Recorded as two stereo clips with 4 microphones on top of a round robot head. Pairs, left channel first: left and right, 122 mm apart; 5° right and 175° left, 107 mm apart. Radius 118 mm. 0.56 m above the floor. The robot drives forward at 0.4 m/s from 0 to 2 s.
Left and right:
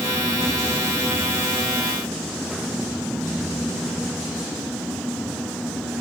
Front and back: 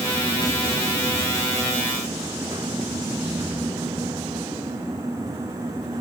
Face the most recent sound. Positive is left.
No sound to turn to.